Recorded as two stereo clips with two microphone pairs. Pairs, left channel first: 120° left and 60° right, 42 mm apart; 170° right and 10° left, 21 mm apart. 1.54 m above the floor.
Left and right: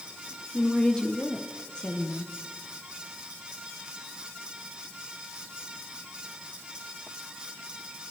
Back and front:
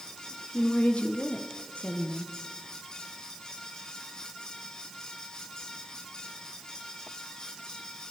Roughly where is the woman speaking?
Behind.